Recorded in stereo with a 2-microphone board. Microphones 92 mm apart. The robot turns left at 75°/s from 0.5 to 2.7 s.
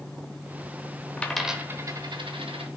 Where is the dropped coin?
15° left (ahead or behind), 0.9 m; by 2.7 s 80° right, 0.9 m.